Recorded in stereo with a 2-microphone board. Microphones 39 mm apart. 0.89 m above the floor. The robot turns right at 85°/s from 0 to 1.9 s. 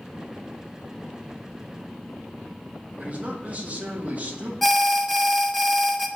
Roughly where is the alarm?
Centre.